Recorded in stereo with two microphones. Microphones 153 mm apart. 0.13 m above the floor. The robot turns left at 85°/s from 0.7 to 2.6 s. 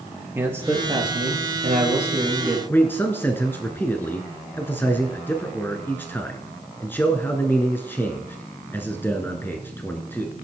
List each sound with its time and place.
0.3 s a man speaking: 20° right, 3.5 m; by 2.6 s straight behind, 3.5 m
2.7 s a man speaking: 15° left (ahead or behind), 1.4 m